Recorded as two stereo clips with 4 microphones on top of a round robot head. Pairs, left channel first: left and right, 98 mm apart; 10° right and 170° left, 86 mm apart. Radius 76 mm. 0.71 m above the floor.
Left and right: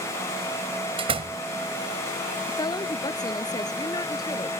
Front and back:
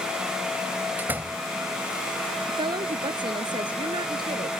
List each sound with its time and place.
1.0 s a door slam: 120° right
2.5 s a woman speaking: 140° left